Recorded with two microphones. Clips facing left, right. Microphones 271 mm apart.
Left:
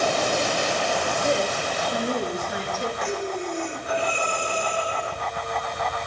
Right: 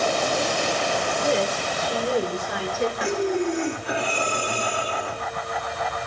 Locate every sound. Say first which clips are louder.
1.2 s a woman speaking: right 2 dB; 80° right, 4 m; by 2.9 s 65° right (ahead or behind), 4.5 m
3.0 s breathing: right 5 dB; 80° right, 2.5 m